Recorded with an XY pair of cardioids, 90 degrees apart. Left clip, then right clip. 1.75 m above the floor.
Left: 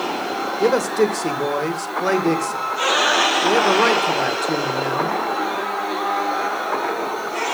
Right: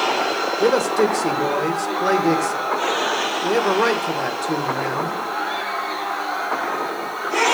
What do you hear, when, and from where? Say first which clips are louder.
0.6 s a man speaking: even; 10° left, 1.8 m